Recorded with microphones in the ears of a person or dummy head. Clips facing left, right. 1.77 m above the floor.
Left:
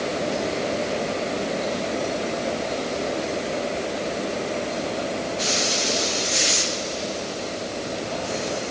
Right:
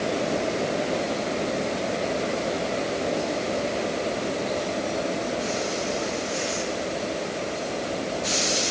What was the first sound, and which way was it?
Only background noise.